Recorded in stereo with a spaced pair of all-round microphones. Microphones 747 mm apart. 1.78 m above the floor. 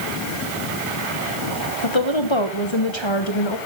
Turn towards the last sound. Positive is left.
turn(degrees=35)  # may be behind; listen again after turning